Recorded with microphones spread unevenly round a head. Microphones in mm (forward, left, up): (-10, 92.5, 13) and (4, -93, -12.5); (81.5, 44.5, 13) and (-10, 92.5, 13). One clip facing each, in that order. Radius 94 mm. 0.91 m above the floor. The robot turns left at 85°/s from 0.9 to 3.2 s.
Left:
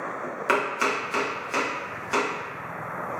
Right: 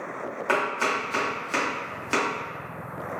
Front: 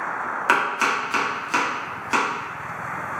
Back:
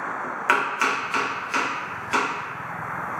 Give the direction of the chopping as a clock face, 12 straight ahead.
11 o'clock.